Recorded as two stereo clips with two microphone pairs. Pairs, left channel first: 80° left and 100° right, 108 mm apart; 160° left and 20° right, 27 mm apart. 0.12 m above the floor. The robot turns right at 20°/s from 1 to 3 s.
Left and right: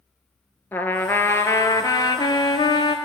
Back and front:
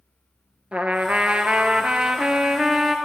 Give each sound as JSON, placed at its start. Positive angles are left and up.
{"t": 0.7, "sound": "a trumpet", "azimuth_deg": 10, "distance_m": 0.5}